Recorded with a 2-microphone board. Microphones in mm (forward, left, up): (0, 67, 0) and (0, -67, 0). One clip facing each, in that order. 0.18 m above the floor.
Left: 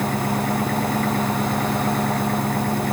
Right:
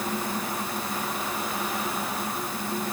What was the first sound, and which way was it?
An engine running, 65° left (ahead or behind).